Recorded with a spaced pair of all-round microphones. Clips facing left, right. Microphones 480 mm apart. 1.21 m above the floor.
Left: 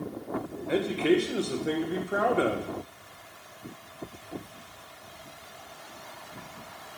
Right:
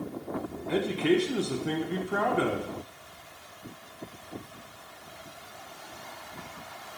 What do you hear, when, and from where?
0.7 s a man speaking: 15° right (ahead or behind), 1.3 m